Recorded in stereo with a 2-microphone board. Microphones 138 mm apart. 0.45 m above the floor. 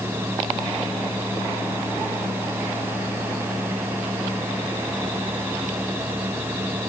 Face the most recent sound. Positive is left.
No sound to turn to.